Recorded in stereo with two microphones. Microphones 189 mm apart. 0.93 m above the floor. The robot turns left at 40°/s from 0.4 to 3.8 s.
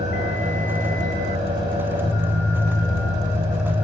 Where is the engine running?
40° right, 4 m; by 3.8 s 175° right, 4 m.